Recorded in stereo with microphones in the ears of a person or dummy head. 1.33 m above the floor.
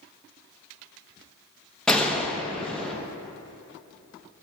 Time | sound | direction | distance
1.9 | a gunshot | 5° left (ahead or behind) | 1.0 m